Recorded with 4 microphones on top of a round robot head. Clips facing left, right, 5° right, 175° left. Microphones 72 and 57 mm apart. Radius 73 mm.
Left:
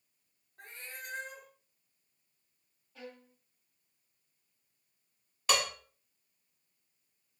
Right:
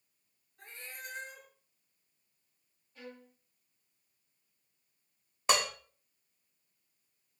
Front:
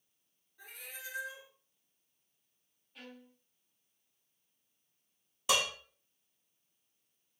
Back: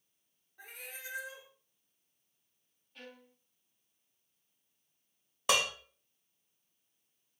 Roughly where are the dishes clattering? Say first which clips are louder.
Right 1 dB, back 1 dB; behind right.